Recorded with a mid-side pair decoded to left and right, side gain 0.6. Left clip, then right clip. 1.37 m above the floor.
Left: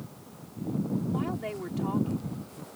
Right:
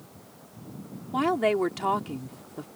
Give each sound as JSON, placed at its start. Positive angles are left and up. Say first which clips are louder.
{"t": 1.1, "sound": "a woman speaking", "louder": "right 10 dB", "azimuth_deg": -55}